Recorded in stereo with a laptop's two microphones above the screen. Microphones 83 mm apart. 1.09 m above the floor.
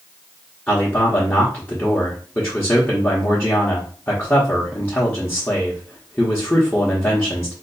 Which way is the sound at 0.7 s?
20° left (ahead or behind).